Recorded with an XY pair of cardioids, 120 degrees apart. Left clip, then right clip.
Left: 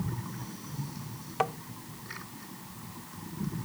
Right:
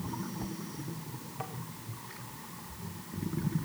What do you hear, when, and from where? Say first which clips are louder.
1.4 s tapping: left 13 dB; 70° left, 0.8 m